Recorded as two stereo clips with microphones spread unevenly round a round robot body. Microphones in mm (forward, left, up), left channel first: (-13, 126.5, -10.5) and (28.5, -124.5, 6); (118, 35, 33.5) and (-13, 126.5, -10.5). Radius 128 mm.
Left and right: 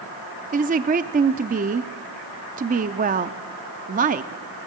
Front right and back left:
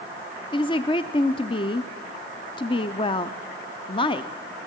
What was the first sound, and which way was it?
A woman speaking, 95° right.